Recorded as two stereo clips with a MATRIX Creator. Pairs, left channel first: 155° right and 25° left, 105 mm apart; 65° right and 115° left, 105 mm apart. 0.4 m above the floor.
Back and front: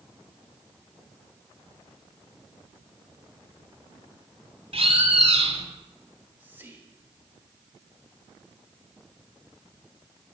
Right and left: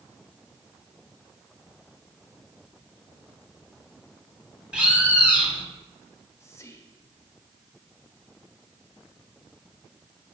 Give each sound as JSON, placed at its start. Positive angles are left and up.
{"t": 4.7, "sound": "a bird", "azimuth_deg": 30, "distance_m": 1.1}
{"t": 6.1, "sound": "whispering", "azimuth_deg": -35, "distance_m": 1.2}